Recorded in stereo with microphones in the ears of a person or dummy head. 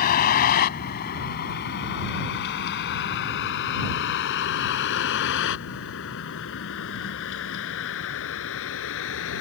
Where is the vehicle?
45° left (ahead or behind); by 9.4 s 75° left (ahead or behind).